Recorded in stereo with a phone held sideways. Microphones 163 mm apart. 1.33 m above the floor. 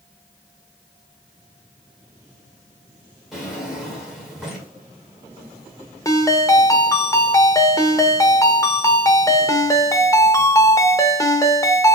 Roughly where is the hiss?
I don't hear a hiss.